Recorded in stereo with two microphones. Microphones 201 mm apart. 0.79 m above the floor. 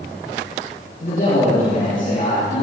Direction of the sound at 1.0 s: 45° left (ahead or behind).